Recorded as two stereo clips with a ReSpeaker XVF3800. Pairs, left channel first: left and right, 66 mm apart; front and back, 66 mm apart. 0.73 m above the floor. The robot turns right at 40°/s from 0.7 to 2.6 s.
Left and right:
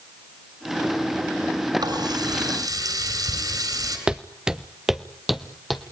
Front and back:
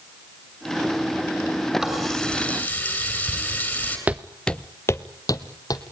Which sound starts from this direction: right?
A running tap, at 1.8 s.